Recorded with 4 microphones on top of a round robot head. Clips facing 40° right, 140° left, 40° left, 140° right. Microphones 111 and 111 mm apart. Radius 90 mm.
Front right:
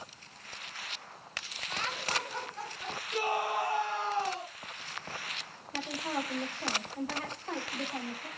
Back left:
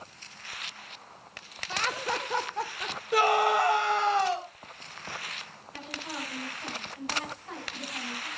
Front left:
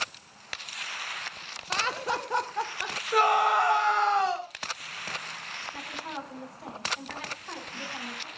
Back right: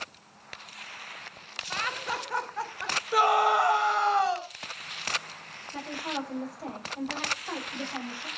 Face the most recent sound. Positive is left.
turn(degrees=-85)